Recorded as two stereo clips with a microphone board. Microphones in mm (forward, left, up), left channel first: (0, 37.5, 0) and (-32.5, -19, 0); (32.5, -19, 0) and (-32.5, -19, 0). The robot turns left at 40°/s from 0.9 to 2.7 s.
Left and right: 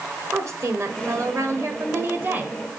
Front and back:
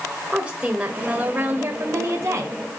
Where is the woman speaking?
115° right, 2.0 m; by 2.6 s straight behind, 2.0 m.